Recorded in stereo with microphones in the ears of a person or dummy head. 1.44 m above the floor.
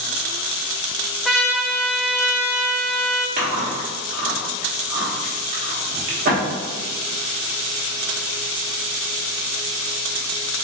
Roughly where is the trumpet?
Centre.